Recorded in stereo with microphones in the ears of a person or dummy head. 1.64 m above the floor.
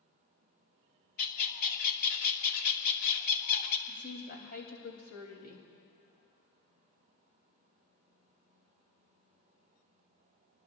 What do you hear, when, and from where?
1.2 s a bird: 50° left (ahead or behind), 1.4 m
3.9 s a woman speaking: 45° left (ahead or behind), 3 m